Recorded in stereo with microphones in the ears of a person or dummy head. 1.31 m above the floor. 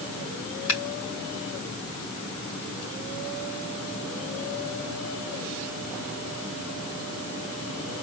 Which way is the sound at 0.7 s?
70° left (ahead or behind).